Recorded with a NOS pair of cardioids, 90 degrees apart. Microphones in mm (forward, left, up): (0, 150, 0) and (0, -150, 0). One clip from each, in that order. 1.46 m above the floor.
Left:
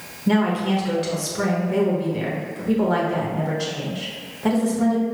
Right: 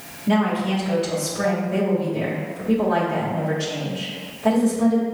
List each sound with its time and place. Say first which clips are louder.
0.3 s a woman speaking: even; 30° left, 1.4 m